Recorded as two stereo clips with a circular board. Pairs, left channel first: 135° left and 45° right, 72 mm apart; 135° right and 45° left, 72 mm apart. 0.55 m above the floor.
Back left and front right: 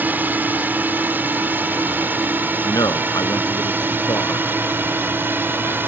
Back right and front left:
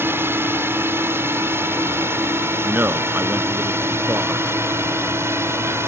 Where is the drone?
10° left; by 5.9 s 5° left.